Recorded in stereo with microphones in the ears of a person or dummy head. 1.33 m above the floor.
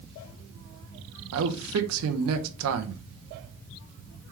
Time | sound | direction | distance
1.3 | a man speaking | 85° right | 0.8 m